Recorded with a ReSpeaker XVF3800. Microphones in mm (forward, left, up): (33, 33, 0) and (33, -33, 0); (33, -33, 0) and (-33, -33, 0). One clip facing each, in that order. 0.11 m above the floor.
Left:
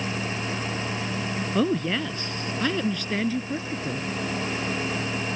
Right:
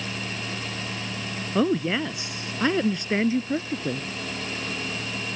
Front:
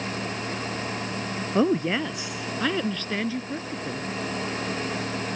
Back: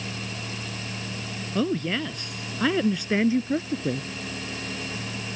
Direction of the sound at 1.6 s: 15° right.